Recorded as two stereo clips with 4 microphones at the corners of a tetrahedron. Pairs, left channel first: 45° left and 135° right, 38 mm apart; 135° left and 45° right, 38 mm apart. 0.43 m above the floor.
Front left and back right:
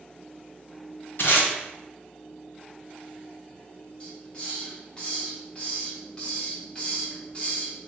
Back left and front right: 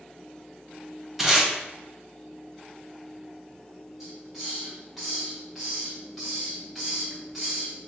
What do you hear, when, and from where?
1.2 s tape being pulled: 40° left, 1.2 m
4.0 s a hiss: 35° left, 1.3 m